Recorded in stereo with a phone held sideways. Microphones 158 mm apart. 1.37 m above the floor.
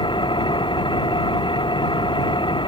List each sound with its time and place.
0.0 s an engine running: 30° left (ahead or behind)